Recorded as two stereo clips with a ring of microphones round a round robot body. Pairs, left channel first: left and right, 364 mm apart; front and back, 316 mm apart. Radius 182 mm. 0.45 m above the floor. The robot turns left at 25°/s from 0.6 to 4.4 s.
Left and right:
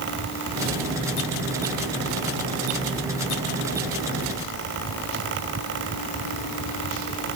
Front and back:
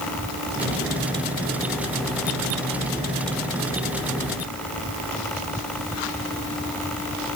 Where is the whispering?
I don't hear whispering.